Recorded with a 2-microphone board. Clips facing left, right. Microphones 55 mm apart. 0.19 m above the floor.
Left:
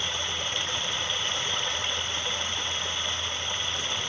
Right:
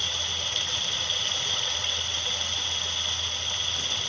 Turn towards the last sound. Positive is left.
turn(degrees=20)  # may be behind; listen again after turning